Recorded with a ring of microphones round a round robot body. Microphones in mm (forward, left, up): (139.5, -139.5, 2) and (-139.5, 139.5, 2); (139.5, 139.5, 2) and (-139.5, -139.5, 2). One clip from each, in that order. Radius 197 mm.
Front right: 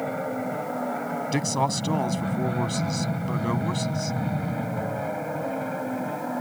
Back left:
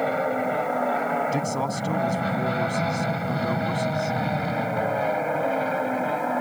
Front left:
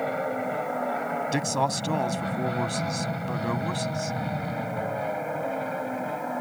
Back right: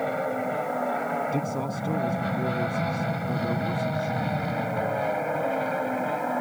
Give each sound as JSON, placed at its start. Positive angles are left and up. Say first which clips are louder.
{"t": 0.0, "sound": "an aircraft", "louder": "back left 5 dB, back right 1 dB", "azimuth_deg": 130}
{"t": 1.3, "sound": "a man speaking", "louder": "front right 1 dB, front left 4 dB", "azimuth_deg": 30}